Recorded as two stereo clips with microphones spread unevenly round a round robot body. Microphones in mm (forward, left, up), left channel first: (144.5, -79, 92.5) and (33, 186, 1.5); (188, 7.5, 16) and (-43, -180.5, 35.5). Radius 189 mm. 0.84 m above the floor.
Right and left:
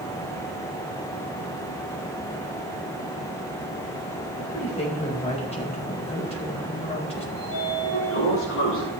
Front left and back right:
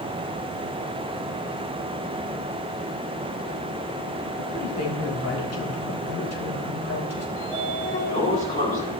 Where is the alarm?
No alarm in this recording.